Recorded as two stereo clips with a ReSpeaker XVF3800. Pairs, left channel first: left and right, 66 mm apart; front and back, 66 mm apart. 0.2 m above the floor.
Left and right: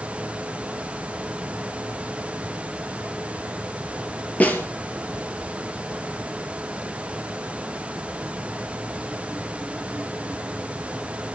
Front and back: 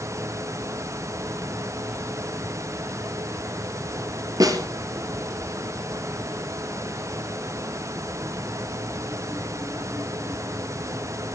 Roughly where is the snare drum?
Behind left.